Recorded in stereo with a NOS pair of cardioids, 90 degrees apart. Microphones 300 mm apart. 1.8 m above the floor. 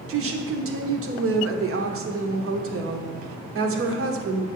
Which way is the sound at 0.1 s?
45° right.